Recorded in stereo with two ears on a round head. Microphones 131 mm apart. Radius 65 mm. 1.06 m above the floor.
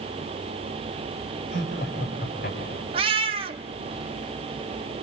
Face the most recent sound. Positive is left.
turn(degrees=-35)  # may be behind; listen again after turning